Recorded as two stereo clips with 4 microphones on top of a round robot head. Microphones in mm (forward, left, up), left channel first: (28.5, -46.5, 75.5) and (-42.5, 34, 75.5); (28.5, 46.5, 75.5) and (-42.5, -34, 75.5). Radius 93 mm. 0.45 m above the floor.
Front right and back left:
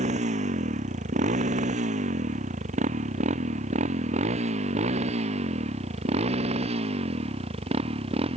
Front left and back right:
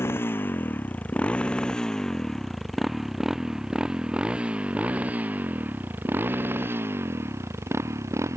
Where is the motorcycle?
120° left; by 8.4 s 165° left.